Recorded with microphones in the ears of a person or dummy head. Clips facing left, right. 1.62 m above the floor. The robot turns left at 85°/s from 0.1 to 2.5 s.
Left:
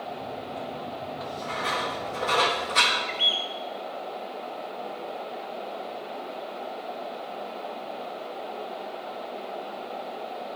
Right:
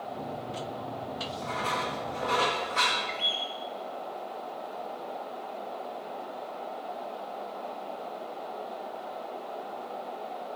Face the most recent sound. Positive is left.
turn(degrees=10)  # may be behind; listen again after turning